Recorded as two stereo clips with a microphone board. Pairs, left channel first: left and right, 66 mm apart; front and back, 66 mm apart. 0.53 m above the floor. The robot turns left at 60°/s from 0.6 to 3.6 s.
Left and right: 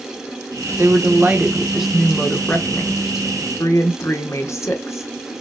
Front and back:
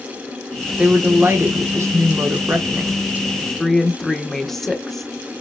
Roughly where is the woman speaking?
Right.